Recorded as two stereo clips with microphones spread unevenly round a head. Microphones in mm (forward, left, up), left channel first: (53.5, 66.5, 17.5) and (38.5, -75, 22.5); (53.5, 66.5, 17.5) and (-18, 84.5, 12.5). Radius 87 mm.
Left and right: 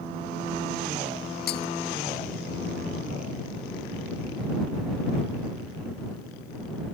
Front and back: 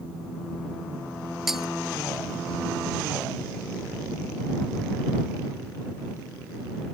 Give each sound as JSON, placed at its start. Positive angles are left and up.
{"t": 1.5, "sound": "breaking glass", "azimuth_deg": 80}